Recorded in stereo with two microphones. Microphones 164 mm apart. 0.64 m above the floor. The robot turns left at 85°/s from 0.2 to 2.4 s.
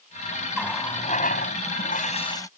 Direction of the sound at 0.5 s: Straight behind.